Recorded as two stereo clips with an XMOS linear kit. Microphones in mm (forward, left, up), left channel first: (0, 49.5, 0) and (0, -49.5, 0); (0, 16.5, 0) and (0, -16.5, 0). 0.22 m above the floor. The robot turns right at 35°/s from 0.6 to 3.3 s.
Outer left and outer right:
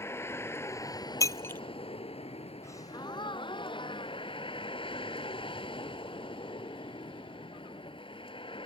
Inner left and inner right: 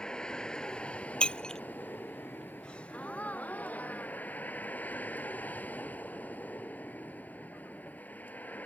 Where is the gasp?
25° left (ahead or behind); by 5.0 s 50° left (ahead or behind).